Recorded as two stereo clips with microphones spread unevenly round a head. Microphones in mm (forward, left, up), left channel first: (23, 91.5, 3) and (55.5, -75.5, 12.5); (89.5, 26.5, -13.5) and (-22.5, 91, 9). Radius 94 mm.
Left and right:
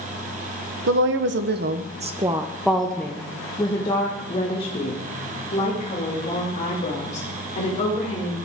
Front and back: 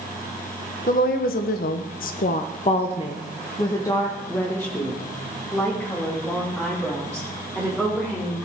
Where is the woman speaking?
75° right, 0.8 m; by 8.4 s 55° left, 3.5 m.